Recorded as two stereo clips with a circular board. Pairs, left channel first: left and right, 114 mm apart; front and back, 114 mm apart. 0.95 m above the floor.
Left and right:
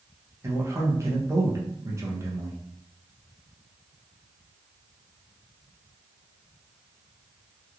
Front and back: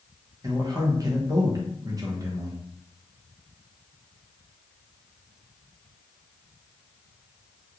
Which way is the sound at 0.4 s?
140° right.